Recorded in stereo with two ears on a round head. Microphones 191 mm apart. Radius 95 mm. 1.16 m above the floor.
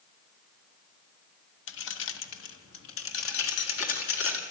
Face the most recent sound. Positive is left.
turn(degrees=70)  # may be behind; listen again after turning